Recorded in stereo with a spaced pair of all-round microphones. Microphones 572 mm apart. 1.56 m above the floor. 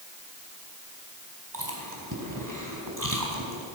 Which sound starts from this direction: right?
Chewing, at 1.5 s.